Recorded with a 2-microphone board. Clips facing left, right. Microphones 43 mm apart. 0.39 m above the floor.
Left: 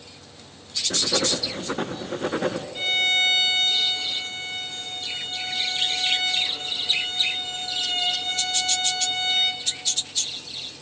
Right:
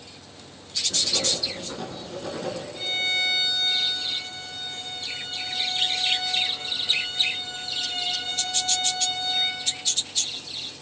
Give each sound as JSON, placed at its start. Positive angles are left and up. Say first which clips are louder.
{"t": 0.9, "sound": "writing", "louder": "left 4 dB", "side_deg": 55, "distance_m": 1.1}
{"t": 2.8, "sound": "a violin", "louder": "left 4 dB", "side_deg": 50, "distance_m": 2.5}